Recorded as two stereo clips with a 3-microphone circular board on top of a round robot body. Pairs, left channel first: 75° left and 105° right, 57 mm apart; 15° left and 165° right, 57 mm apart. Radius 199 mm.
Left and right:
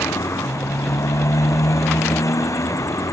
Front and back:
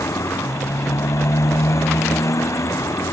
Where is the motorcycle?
45° left.